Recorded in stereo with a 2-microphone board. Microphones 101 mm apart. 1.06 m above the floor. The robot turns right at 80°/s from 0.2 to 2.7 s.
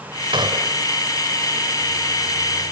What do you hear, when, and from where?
0.3 s a gunshot: 60° right; by 0.8 s 20° right